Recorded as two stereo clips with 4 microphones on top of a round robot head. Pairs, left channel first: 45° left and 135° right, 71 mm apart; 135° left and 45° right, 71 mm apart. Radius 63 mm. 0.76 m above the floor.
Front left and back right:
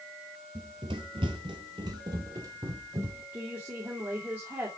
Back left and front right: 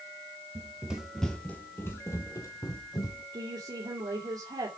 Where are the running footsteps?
105° right, 1.0 m; by 3.2 s 175° left, 2 m.